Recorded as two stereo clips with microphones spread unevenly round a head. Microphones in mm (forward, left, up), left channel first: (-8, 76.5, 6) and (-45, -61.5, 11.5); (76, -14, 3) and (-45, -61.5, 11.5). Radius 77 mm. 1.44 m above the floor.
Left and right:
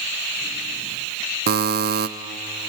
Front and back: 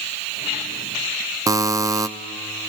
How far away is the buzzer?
About 0.7 m.